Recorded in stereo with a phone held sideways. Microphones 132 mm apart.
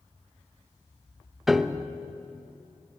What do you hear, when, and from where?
1.5 s a piano: centre (ahead or behind), 0.8 m